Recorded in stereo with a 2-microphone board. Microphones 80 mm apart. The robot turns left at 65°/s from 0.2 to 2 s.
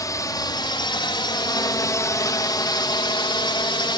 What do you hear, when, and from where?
0.0 s a drone: 50° left (ahead or behind); by 4.0 s 75° left (ahead or behind)